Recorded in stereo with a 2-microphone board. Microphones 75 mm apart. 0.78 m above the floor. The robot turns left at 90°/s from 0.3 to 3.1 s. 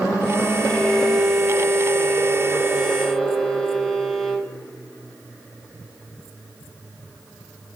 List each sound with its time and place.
0.6 s a violin: 30° left, 1.3 m; by 4.5 s 165° left, 1.3 m